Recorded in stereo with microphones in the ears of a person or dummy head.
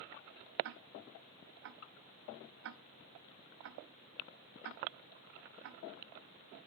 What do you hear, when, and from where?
0.6 s ticking: 65° right (ahead or behind), 0.6 m